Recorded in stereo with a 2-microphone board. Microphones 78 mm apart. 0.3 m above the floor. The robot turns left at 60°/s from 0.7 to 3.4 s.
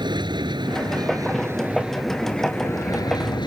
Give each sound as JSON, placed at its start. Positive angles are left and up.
{"t": 0.0, "sound": "an aircraft", "azimuth_deg": -100}